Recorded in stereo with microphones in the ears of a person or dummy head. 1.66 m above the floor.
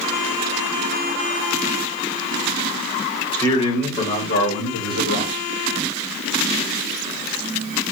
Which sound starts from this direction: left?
A man speaking, at 3.3 s.